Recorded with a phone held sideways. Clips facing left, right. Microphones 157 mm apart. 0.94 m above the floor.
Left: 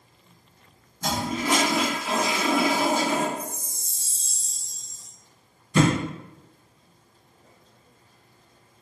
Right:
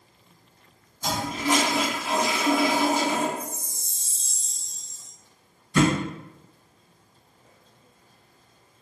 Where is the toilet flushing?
65° left (ahead or behind), 1.9 m.